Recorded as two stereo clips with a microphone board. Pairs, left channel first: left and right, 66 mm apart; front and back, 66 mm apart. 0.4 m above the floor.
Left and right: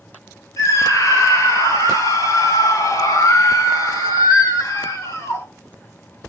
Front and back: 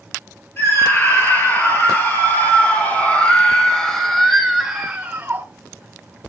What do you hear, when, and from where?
0.6 s a scream: 50° left, 8 m; by 5.5 s 125° left, 3 m